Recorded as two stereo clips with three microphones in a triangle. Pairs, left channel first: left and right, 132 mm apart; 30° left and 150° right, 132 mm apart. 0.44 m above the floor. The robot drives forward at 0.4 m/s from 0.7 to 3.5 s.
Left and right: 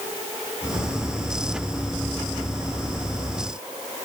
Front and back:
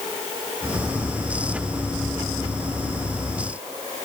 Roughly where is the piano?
I don't hear a piano.